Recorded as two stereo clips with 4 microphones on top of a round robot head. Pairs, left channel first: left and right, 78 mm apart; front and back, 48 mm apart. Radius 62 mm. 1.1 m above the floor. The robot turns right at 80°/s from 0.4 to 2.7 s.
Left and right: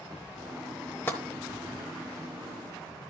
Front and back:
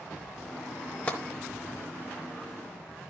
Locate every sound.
1.1 s tapping: 45° left, 0.9 m; by 1.2 s 55° left, 0.9 m